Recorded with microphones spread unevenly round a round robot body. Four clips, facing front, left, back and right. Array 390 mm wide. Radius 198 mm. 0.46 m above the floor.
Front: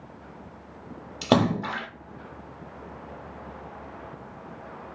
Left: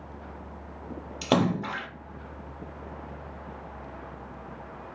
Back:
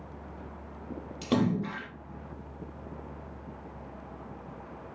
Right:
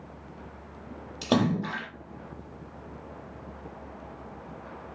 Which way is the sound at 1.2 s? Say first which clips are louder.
Even, front 6 dB; straight ahead.